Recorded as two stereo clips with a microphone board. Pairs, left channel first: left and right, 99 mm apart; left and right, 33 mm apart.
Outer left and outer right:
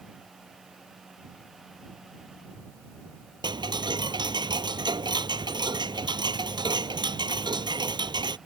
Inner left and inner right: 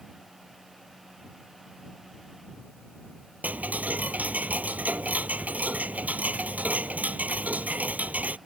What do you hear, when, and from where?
3.4 s ticking: 50° right (ahead or behind)